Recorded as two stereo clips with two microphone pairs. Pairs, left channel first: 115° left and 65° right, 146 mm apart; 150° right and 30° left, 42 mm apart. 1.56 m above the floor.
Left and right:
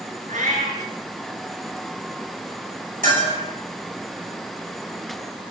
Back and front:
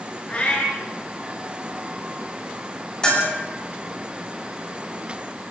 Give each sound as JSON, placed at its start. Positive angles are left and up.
{"t": 0.3, "sound": "a cat meowing", "azimuth_deg": -90, "distance_m": 5.5}
{"t": 3.0, "sound": "a bell", "azimuth_deg": -85, "distance_m": 9.0}